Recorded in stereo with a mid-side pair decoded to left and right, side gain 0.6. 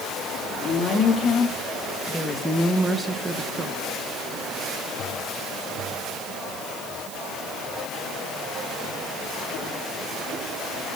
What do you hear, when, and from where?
0.6 s a woman speaking: 35° left, 3 m; by 3.8 s 35° right, 1.6 m